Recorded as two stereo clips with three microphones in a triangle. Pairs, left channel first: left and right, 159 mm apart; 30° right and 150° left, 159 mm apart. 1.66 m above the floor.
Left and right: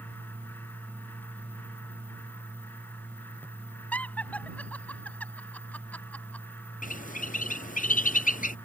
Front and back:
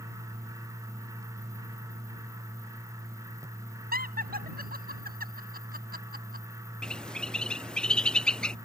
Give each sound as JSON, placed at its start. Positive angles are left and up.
{"t": 3.9, "sound": "laughter", "azimuth_deg": 170}
{"t": 6.8, "sound": "a bird", "azimuth_deg": 55}